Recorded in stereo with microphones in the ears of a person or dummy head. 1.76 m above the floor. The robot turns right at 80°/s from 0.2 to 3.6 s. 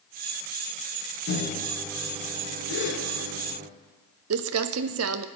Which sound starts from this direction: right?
Crumpling, at 4.3 s.